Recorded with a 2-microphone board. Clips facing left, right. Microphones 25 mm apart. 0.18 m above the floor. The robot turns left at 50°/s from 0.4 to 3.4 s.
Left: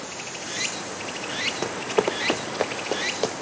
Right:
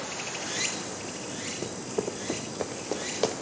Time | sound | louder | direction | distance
0.0 | running water | even | straight behind | 2 m
1.6 | running footsteps | left 8 dB | 55° left (ahead or behind) | 0.6 m